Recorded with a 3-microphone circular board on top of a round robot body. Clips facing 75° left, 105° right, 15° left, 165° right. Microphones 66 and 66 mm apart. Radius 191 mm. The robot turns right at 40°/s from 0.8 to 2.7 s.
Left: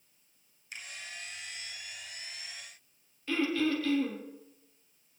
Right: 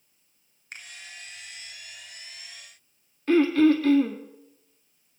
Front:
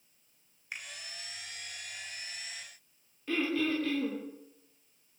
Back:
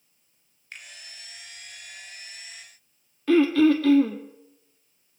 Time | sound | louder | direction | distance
0.7 | a finger snap | right 2 dB, front 1 dB | 60° right | 3 m
3.3 | throat clearing | right 11 dB, back 13 dB | 155° right | 1.4 m